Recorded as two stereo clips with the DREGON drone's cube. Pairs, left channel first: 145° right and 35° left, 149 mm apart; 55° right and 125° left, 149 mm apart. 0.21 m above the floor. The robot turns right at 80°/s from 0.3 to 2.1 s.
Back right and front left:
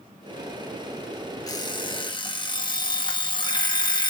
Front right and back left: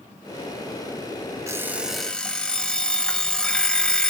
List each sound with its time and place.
1.5 s an alarm clock: 175° left, 0.6 m; by 4.1 s 135° right, 0.6 m